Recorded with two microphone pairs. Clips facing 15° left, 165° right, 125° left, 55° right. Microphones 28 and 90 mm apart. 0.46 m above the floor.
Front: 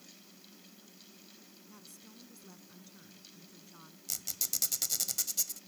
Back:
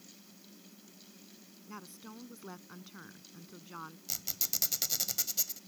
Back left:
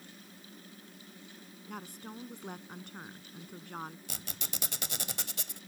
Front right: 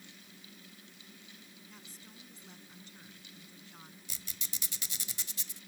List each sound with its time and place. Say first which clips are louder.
1.7 s a woman speaking: back 10 dB, back left 15 dB; 150° left
4.1 s a squeak: front 1 dB, back left 7 dB; 115° left